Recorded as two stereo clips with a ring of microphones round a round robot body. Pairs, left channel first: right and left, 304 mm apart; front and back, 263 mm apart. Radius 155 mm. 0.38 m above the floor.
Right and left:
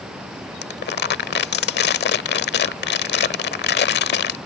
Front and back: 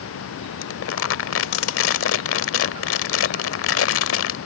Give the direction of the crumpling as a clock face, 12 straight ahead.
1 o'clock.